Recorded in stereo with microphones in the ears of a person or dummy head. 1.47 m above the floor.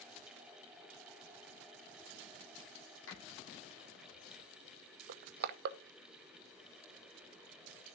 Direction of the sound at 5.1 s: 60° right (ahead or behind).